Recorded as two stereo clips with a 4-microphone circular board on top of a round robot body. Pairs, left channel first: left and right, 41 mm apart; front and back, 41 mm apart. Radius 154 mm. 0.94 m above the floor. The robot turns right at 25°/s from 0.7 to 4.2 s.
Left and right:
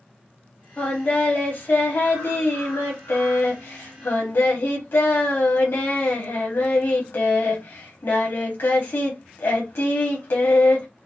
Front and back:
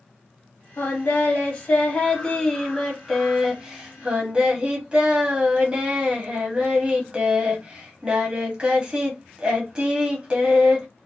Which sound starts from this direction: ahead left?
Singing, at 0.8 s.